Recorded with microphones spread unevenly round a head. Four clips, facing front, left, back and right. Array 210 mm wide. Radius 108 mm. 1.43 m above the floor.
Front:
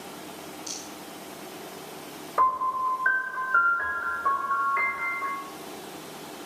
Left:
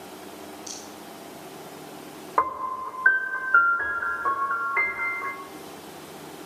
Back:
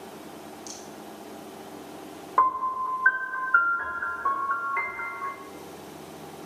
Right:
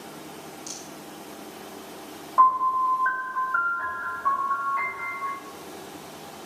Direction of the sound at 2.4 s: 105° left.